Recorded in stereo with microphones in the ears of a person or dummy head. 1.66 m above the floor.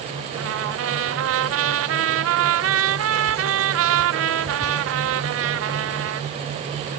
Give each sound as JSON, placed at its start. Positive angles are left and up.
{"t": 0.3, "sound": "a trumpet", "side_deg": -80}